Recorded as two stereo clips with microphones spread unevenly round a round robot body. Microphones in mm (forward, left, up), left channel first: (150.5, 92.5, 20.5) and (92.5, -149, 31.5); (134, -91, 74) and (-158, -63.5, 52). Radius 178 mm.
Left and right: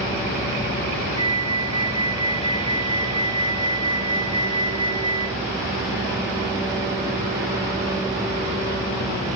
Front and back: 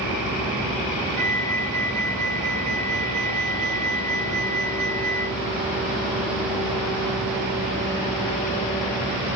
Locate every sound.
1.2 s a flute: straight behind, 1.7 m